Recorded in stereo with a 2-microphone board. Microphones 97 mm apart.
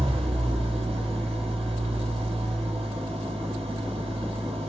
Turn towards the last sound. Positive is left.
turn(degrees=-85)